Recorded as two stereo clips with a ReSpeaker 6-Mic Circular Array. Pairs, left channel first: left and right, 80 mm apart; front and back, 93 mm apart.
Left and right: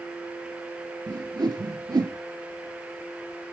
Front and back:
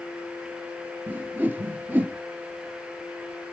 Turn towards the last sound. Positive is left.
turn(degrees=-110)